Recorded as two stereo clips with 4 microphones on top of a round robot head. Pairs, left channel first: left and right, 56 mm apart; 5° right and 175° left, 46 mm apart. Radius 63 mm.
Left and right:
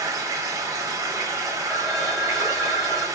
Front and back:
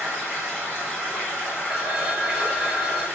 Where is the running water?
105° right, 1.2 m.